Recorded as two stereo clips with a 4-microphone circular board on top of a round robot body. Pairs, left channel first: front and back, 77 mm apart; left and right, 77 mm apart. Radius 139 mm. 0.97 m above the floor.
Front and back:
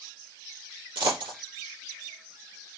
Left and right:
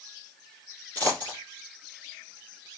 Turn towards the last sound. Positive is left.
turn(degrees=160)